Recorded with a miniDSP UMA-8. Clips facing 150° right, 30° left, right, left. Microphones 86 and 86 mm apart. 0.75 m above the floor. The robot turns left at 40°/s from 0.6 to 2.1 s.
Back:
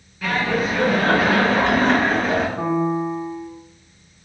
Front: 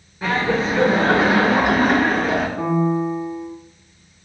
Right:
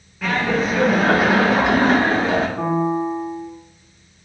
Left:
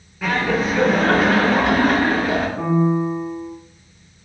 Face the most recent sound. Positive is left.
turn(degrees=-105)